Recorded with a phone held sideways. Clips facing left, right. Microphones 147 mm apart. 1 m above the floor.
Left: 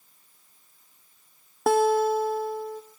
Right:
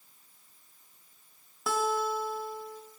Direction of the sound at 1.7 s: 55° left (ahead or behind).